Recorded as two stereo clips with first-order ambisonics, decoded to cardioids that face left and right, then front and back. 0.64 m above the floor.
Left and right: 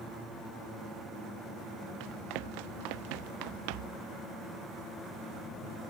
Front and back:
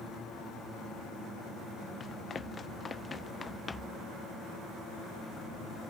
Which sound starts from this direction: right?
Running footsteps, at 2.0 s.